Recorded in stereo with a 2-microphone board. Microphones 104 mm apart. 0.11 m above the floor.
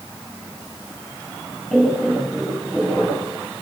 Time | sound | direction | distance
1.7 | laughter | 10° left (ahead or behind) | 10 m